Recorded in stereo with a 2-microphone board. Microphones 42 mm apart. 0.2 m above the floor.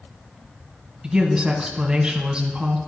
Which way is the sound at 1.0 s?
15° right (ahead or behind).